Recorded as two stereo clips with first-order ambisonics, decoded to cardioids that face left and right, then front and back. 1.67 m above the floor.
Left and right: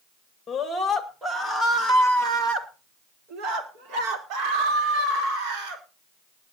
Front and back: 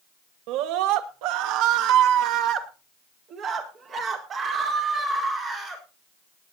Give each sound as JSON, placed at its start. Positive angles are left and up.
{"t": 0.5, "sound": "a scream", "azimuth_deg": 165, "distance_m": 2.0}